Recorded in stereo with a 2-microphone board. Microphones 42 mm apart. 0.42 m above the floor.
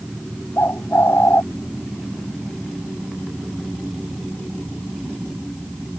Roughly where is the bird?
Left.